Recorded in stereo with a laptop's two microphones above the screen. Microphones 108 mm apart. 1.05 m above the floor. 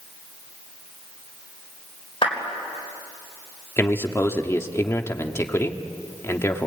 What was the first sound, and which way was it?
A clap, 55° left (ahead or behind).